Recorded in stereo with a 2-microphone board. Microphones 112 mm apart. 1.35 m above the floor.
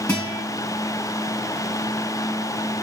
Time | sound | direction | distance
0.1 | a guitar | 15° left (ahead or behind) | 3.5 m